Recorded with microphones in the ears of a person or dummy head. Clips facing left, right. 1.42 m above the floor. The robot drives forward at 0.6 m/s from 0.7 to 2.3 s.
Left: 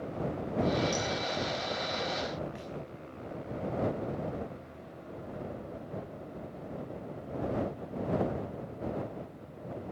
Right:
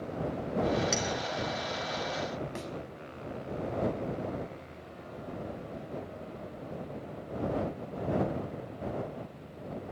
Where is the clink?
30° right (ahead or behind), 4 m.